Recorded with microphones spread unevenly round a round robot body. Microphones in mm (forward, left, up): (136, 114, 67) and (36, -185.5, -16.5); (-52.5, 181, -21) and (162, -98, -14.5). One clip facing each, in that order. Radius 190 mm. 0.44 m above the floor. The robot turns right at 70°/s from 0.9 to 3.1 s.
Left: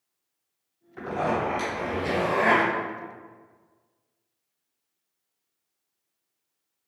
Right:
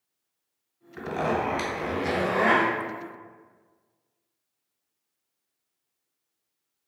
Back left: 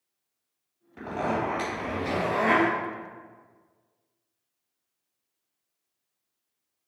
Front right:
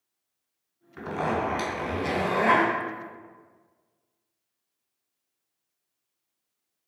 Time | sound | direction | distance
1.0 | a zipper | 105° right | 1.7 m